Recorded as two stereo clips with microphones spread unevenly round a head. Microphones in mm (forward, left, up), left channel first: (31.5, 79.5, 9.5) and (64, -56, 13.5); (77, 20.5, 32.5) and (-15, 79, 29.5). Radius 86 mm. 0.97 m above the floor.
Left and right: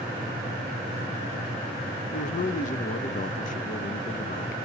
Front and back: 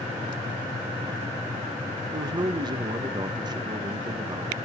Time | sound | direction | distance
2.1 | a man speaking | 105° left | 1.0 m